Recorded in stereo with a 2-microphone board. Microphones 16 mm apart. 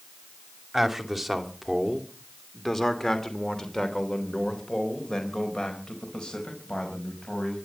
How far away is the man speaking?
About 2.5 m.